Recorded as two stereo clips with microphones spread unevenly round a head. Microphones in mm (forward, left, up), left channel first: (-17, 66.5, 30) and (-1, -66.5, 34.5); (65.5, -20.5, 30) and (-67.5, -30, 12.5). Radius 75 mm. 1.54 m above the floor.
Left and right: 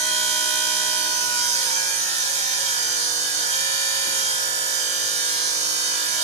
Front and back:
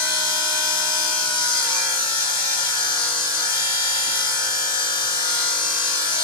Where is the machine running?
45° right, 1.8 m.